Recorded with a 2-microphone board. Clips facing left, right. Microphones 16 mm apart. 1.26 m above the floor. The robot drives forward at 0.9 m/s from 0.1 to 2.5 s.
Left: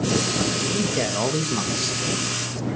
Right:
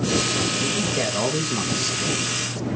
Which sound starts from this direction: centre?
A man speaking, at 0.6 s.